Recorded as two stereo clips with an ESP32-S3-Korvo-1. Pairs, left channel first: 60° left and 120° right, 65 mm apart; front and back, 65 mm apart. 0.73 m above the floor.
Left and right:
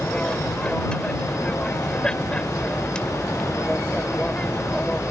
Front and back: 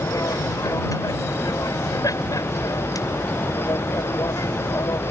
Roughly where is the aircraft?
Ahead.